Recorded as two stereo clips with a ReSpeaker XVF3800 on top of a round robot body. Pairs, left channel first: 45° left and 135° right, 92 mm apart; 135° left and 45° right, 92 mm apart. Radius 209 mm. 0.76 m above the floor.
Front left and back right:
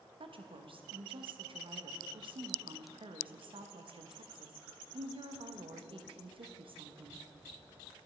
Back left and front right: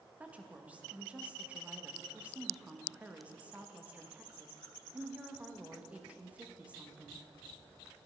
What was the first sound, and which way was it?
A woman speaking, 120° right.